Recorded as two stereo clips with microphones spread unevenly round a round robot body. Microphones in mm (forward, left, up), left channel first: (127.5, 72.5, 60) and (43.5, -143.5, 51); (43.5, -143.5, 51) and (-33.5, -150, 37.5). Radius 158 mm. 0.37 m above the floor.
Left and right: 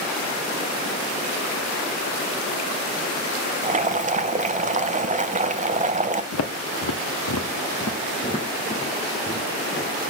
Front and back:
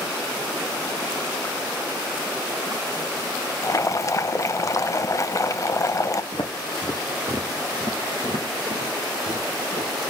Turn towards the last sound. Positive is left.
turn(degrees=160)